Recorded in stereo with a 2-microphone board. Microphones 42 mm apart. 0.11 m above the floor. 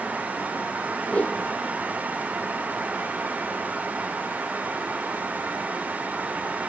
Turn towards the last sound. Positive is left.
turn(degrees=30)  # may be behind; listen again after turning